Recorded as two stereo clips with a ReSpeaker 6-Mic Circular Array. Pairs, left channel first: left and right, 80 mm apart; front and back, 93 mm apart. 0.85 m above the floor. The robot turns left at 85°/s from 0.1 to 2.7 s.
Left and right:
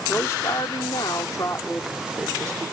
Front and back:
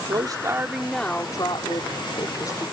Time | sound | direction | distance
0.1 | a woman speaking | 155° left | ?